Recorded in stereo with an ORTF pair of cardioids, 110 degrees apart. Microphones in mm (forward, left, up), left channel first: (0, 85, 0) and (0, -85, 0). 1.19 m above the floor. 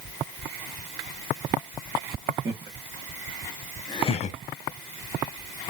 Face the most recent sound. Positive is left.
turn(degrees=60)